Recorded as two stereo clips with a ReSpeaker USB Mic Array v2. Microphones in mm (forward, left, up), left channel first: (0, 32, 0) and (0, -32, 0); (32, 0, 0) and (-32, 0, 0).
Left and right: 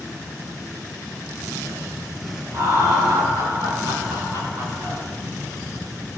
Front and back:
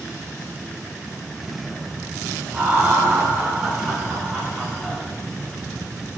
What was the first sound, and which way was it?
Laughter, 115° right.